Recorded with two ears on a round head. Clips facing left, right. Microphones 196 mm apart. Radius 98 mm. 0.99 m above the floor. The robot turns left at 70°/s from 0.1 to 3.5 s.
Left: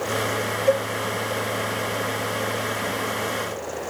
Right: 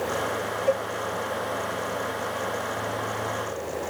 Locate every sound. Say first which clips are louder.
0.7 s a cowbell: left 4 dB; 65° left (ahead or behind), 1.5 m; by 0.9 s 80° left, 1.5 m